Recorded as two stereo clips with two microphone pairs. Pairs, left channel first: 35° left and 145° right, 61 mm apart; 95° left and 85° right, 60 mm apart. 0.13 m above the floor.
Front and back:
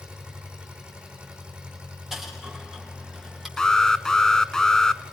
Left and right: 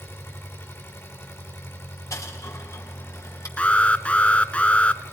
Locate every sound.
0.0 s an engine running: 140° left, 7.5 m
2.1 s a dropped coin: 130° left, 8.5 m
3.6 s an alarm: 95° left, 0.9 m